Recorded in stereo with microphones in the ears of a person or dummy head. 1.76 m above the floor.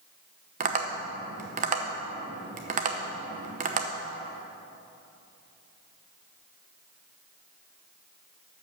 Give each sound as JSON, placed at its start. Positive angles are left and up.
{"t": 0.6, "sound": "tapping", "side_deg": -40, "distance_m": 0.9}